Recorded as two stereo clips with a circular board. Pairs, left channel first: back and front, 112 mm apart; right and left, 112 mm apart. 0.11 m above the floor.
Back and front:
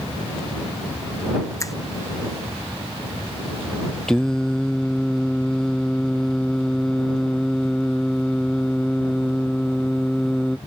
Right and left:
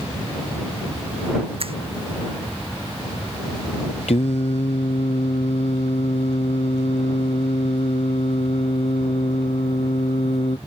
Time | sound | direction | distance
1.6 | a finger snap | 120° left | ?
4.1 | singing | 95° right | ?